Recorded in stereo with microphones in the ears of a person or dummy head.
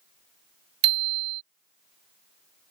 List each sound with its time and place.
0.8 s a bicycle bell: 30° right (ahead or behind)